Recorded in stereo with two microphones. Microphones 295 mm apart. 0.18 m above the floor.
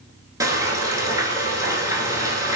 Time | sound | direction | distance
0.4 | frying | 15° right (ahead or behind) | 0.5 m